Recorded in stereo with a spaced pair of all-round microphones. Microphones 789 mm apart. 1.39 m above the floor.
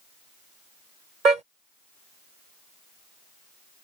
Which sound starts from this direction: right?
A car horn, at 1.2 s.